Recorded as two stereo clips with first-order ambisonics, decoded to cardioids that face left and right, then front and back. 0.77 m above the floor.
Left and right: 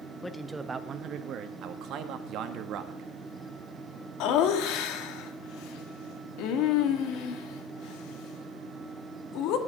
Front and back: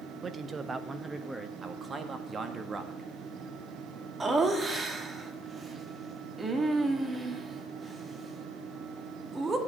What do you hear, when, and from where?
0.2 s a man speaking: 160° left, 0.6 m; by 1.5 s 100° right, 0.9 m
1.6 s a man speaking: 115° right, 1.3 m
4.2 s laughter: 105° left, 1.6 m